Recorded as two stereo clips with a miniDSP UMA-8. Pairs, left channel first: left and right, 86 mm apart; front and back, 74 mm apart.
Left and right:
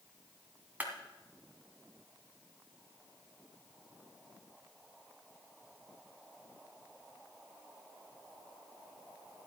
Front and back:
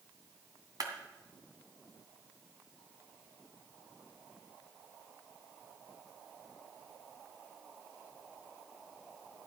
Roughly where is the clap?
Behind.